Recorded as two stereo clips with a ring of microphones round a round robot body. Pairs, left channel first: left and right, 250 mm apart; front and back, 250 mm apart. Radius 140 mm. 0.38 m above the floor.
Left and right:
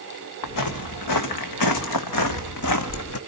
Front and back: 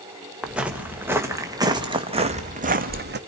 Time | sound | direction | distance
0.4 | footsteps | 95° left | 2.5 m